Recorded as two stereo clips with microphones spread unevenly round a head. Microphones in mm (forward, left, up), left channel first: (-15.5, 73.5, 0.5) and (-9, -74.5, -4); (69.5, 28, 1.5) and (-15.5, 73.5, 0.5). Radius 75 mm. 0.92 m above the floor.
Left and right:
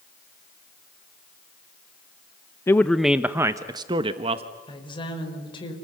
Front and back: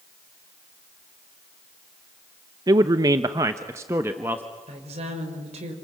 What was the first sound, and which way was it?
A man speaking, 155° left.